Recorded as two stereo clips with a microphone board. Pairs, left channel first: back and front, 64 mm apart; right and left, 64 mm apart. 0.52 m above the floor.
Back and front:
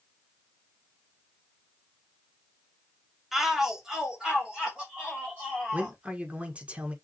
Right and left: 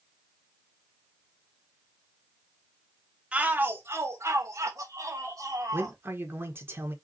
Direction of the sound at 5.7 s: 60° left.